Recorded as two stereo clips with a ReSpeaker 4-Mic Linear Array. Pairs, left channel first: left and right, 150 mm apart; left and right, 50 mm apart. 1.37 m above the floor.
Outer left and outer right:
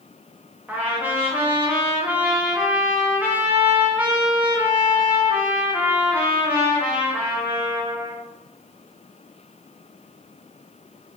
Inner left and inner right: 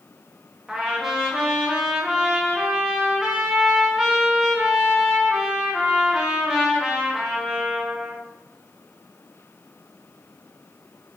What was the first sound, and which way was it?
A trumpet, 10° right (ahead or behind).